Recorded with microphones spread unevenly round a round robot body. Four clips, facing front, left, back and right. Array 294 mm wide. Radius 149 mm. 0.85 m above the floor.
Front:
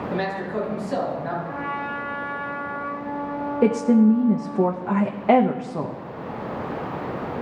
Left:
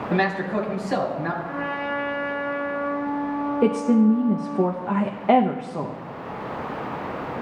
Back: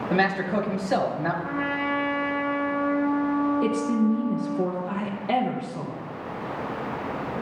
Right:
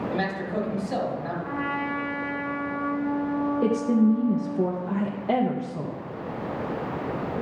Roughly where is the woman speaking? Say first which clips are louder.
Left 4 dB, front 6 dB; ahead.